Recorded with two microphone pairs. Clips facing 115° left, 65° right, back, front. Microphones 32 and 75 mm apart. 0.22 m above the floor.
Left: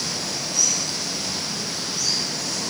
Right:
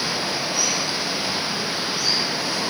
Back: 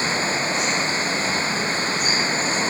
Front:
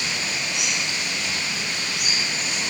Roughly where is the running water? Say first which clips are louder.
Right 4 dB, back 6 dB; behind right.